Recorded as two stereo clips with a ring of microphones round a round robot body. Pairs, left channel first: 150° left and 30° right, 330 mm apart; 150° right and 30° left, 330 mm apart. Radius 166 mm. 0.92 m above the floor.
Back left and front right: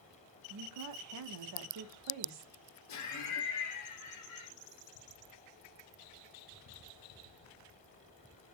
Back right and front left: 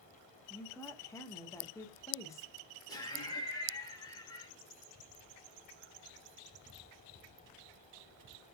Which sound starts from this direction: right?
A woman speaking, at 0.5 s.